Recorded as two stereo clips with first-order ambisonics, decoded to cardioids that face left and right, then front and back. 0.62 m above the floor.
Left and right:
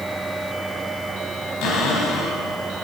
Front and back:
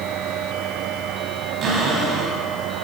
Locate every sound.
1.6 s a cupboard door: 120° left, 4 m